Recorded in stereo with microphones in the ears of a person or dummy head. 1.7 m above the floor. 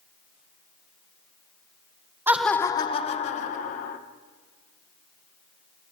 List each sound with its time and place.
2.3 s laughter: 15° right (ahead or behind), 0.5 m; by 4.0 s 50° left (ahead or behind), 1.5 m